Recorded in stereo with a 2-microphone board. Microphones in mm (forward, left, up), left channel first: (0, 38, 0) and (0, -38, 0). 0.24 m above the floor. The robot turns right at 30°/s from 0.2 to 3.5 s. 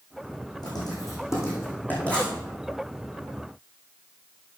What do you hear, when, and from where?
0.6 s writing: 60° left (ahead or behind), 4 m; by 2.3 s 10° left (ahead or behind), 4 m